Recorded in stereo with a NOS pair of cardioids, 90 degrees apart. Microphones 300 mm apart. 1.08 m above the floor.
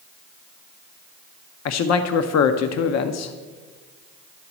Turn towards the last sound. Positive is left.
turn(degrees=60)